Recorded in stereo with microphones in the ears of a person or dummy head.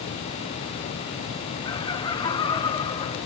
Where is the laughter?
15° left (ahead or behind), 1.9 m; by 3.2 s 20° left (ahead or behind), 3.5 m.